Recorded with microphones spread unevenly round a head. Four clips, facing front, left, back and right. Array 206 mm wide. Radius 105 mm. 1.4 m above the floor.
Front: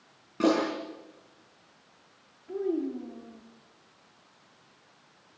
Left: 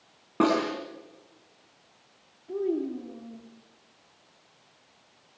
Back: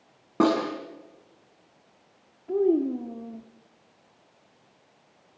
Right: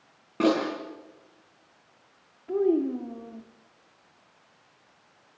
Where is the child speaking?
160° right, 1.8 m.